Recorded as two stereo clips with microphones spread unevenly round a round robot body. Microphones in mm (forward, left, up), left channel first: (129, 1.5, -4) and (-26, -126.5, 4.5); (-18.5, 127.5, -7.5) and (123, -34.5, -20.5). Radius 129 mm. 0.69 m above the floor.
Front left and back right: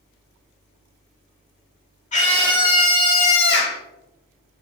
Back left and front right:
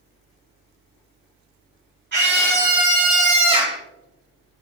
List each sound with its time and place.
2.1 s a scream: 15° right, 2.5 m; by 3.8 s 20° left, 1.4 m